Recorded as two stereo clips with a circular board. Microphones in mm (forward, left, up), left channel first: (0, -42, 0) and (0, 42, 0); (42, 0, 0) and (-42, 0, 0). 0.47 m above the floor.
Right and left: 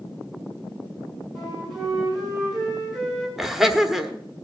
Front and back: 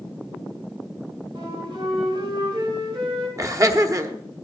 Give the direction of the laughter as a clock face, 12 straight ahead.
6 o'clock.